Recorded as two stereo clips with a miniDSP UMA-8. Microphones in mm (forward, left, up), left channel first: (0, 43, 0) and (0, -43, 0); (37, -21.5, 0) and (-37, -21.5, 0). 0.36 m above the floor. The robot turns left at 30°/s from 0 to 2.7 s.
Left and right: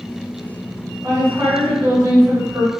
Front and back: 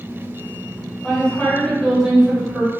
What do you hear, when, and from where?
1.0 s a woman speaking: 70° right, 1.7 m; by 2.7 s 120° right, 1.7 m